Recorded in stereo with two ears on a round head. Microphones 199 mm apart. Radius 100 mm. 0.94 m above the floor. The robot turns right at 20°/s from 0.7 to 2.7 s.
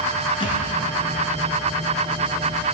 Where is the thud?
25° left (ahead or behind), 3 m.